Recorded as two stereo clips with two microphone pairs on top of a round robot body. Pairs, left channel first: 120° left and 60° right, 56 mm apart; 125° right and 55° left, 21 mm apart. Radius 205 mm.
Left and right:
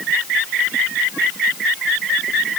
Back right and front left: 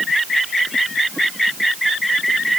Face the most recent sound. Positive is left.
No sound to turn to.